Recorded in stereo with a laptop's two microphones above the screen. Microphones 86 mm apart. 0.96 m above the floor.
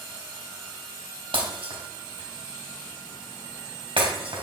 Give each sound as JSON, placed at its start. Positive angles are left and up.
{"t": 1.3, "sound": "breaking glass", "side_deg": -85, "distance_m": 3.0}